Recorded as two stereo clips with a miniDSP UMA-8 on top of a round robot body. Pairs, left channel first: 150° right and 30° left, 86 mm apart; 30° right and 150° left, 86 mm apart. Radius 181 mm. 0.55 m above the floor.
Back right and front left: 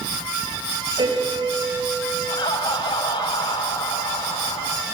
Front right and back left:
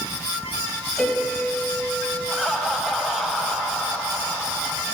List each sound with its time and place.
1.0 s a piano: 55° left, 5 m
2.3 s laughter: 120° right, 4.5 m